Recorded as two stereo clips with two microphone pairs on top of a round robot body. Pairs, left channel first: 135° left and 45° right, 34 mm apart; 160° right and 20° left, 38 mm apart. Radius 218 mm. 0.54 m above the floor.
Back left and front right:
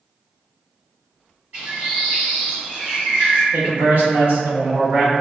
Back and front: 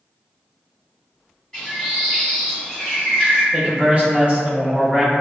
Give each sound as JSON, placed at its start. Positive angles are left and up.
{"t": 1.5, "sound": "a bird", "azimuth_deg": -80, "distance_m": 0.8}
{"t": 3.5, "sound": "a man speaking", "azimuth_deg": -25, "distance_m": 1.4}